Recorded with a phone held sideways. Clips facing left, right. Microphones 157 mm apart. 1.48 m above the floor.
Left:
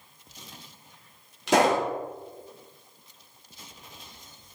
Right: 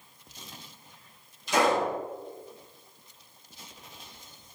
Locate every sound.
1.5 s a pop: 80° left, 4.5 m